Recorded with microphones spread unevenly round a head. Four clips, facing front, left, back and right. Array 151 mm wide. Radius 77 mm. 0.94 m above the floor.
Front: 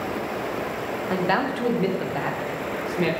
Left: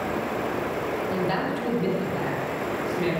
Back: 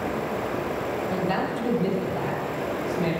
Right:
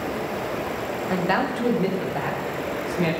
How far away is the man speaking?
About 2.5 m.